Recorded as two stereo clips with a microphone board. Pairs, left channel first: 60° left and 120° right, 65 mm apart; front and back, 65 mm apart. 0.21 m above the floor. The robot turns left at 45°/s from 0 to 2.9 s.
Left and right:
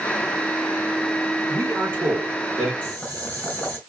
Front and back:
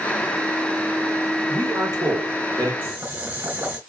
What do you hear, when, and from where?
1.5 s a man speaking: 140° right, 3 m; by 2.7 s 165° left, 3 m
2.8 s boiling: 130° left, 3 m; by 3.8 s 125° left, 3 m